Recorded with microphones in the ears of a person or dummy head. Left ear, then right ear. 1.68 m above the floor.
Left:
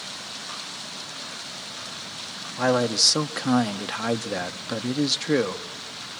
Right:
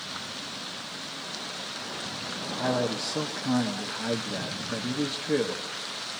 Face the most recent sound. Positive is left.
turn(degrees=65)  # may be behind; listen again after turning